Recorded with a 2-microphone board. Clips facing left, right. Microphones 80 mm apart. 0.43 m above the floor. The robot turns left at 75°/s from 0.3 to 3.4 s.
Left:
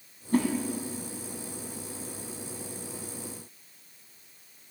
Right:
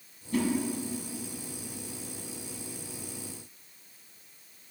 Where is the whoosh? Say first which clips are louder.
Left 4 dB; 40° left (ahead or behind), 1.7 m; by 0.5 s 50° left (ahead or behind), 1.7 m.